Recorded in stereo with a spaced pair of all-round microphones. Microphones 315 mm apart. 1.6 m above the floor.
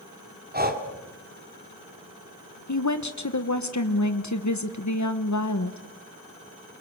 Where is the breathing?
25° right (ahead or behind), 2 m.